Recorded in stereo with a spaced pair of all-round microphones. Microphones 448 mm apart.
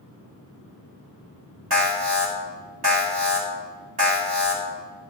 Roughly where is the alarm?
Right.